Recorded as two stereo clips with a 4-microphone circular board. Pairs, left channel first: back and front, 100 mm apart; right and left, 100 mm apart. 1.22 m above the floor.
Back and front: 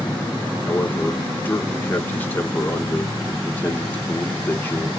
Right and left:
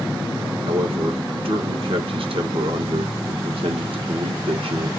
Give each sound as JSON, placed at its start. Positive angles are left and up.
{"t": 0.7, "sound": "a man speaking", "azimuth_deg": 110, "distance_m": 1.5}